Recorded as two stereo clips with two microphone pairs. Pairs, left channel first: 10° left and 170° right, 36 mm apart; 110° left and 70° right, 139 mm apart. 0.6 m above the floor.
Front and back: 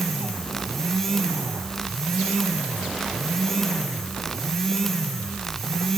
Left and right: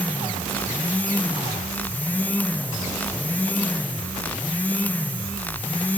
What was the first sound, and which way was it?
Only background noise.